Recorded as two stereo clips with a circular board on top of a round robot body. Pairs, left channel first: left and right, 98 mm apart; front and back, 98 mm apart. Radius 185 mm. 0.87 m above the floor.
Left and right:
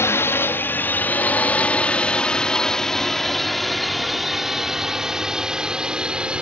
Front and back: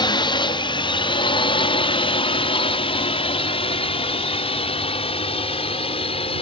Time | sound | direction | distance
0.0 | a drone | 30° left | ?